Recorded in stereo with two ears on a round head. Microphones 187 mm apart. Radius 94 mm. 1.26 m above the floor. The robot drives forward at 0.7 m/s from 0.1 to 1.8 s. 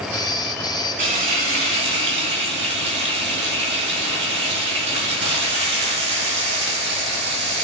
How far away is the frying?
About 2.5 m.